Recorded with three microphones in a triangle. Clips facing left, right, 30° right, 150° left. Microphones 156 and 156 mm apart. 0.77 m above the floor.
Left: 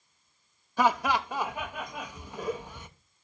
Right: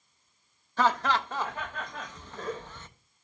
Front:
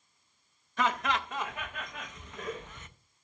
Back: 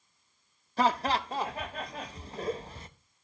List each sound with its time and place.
0.8 s laughter: 160° left, 0.5 m